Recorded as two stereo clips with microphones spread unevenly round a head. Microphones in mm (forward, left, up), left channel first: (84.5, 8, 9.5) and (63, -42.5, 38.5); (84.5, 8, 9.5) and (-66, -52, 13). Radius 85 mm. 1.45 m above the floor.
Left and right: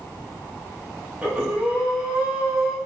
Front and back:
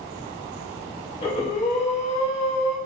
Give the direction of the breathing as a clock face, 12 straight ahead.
1 o'clock.